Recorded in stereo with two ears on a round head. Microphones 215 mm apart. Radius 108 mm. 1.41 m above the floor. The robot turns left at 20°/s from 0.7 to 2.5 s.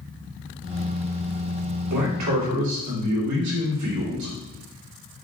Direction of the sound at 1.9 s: 65° right (ahead or behind).